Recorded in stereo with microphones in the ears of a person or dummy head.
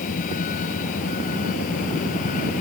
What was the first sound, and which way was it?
A vehicle, 45° left (ahead or behind).